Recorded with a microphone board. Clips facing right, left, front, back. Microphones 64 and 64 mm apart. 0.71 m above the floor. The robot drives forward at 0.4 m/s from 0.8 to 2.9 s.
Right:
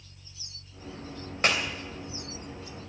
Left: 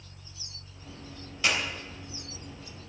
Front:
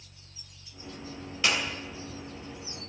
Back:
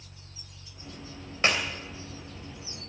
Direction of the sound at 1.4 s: 125° right.